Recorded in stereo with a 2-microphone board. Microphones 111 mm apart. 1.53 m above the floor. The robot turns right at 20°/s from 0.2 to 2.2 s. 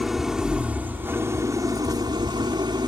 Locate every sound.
0.0 s an engine running: 175° right; by 2.9 s 135° right